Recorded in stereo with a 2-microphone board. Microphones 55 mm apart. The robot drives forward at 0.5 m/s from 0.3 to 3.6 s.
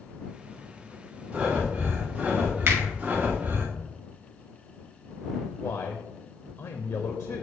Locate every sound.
1.3 s breathing: 20° right (ahead or behind), 2 m; by 3.7 s 35° right (ahead or behind), 1.4 m
2.7 s a finger snap: 50° right (ahead or behind), 2.5 m
5.6 s a man speaking: 55° left (ahead or behind), 0.6 m